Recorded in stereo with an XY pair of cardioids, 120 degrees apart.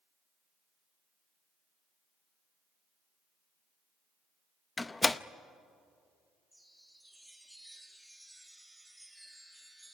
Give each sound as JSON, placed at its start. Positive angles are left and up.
{"t": 4.8, "sound": "a door slam", "azimuth_deg": 20, "distance_m": 0.6}
{"t": 6.5, "sound": "a chime", "azimuth_deg": -5, "distance_m": 2.5}